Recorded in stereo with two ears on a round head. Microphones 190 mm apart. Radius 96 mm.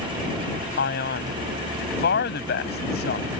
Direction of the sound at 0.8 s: 50° left (ahead or behind).